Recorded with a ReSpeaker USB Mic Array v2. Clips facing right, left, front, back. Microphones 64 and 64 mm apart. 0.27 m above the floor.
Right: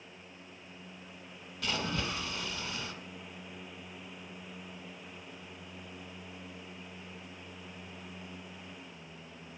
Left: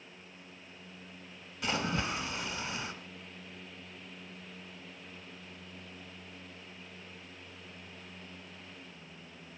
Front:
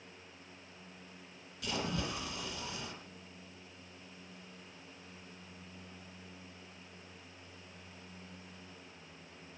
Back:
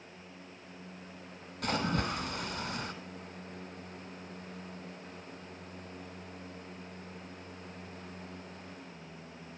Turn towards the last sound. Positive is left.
turn(degrees=160)